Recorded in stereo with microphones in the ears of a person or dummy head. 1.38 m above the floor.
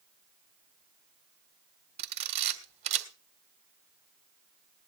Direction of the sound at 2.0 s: 40° right (ahead or behind).